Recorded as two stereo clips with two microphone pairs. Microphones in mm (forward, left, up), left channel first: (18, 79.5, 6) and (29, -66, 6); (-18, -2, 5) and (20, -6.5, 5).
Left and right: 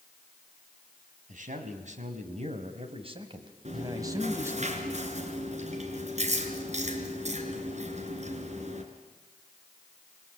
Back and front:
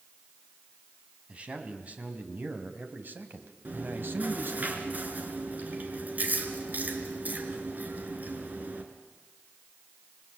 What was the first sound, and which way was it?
A man speaking, 60° right.